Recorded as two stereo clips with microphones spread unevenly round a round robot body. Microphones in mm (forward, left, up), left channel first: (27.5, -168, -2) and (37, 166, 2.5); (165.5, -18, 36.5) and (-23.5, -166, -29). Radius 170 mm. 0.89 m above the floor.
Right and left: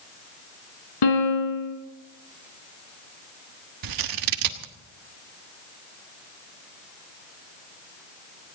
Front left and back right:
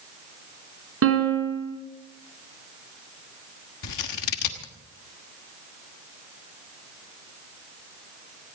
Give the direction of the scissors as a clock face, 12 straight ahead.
10 o'clock.